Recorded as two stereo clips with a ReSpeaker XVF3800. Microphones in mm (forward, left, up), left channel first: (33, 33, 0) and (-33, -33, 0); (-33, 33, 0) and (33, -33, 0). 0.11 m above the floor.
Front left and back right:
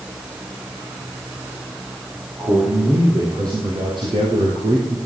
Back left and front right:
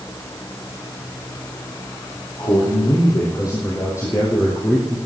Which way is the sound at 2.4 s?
170° left.